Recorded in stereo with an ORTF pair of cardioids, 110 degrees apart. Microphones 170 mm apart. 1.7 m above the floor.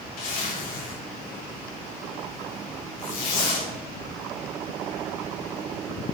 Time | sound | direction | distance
0.2 | a zipper | 65° left | 3 m